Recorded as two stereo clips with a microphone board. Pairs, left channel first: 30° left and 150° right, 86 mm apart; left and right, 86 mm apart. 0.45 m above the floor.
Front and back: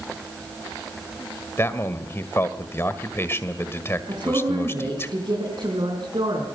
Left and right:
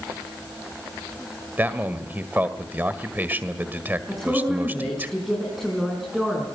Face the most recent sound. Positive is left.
turn(degrees=180)